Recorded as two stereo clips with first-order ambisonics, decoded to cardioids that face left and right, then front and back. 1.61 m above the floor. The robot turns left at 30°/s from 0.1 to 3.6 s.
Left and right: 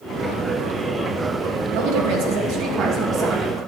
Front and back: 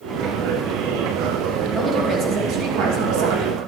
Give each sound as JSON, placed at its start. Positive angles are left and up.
{"t": 1.7, "sound": "a woman speaking", "azimuth_deg": -110, "distance_m": 1.6}